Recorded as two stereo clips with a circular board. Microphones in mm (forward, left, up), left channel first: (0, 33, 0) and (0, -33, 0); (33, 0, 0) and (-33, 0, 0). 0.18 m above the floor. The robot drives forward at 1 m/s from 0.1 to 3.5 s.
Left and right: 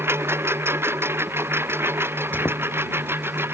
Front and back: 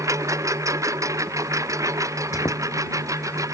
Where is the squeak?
30° left; by 2.6 s 45° left.